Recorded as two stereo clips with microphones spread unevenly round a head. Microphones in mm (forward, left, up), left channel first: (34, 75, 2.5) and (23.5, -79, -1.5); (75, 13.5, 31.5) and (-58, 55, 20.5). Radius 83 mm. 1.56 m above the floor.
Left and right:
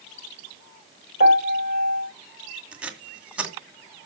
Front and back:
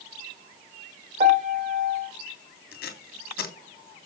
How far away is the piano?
About 2.5 m.